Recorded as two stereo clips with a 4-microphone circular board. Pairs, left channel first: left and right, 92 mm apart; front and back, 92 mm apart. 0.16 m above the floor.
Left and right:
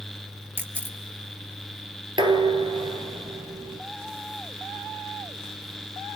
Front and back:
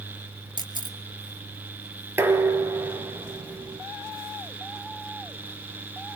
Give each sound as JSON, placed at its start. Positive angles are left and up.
{"t": 0.6, "sound": "a camera shutter", "azimuth_deg": -155, "distance_m": 3.0}
{"t": 2.2, "sound": "dishes clattering", "azimuth_deg": -115, "distance_m": 2.0}